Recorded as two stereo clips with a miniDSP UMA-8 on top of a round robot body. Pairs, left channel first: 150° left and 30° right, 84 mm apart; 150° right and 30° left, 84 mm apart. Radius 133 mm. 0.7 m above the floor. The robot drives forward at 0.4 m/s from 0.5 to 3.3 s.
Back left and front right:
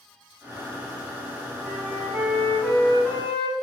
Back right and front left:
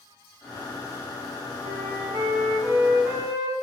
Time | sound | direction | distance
1.6 | a flute | 50° left | 1.8 m